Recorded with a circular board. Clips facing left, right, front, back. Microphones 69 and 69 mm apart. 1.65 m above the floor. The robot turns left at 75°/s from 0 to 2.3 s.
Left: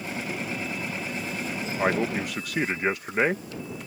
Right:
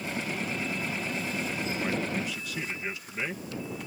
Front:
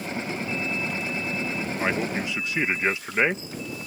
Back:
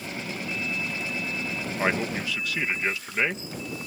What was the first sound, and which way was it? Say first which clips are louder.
A man speaking: left 9 dB, back 1 dB; 105° left.